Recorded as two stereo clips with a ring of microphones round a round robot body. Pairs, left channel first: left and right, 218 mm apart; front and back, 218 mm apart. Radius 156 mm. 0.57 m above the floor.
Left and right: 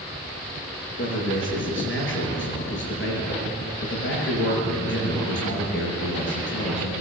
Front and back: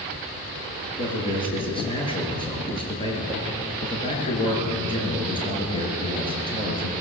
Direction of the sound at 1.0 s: 65° left.